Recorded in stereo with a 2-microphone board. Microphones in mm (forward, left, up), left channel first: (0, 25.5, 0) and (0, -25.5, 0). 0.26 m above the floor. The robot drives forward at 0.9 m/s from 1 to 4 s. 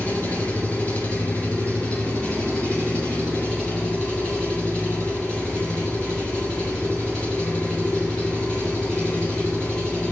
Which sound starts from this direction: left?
An engine running, at 0.0 s.